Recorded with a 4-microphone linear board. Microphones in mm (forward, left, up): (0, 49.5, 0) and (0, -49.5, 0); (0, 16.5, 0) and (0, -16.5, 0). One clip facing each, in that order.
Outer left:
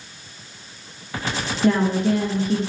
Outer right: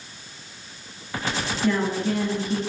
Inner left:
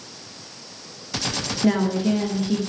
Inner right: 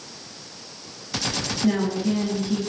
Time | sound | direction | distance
1.6 | a woman speaking | 55° left (ahead or behind) | 1.2 m